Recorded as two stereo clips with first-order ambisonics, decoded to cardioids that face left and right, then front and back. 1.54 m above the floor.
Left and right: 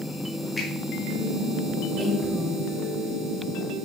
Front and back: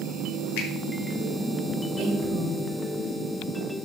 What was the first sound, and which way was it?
A finger snap, 15° left.